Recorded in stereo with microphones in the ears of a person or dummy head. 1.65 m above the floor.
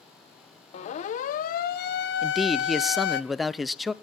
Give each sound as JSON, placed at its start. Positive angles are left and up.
{"t": 0.7, "sound": "a siren", "side_deg": 35, "distance_m": 2.0}
{"t": 2.2, "sound": "a man speaking", "side_deg": 0, "distance_m": 0.6}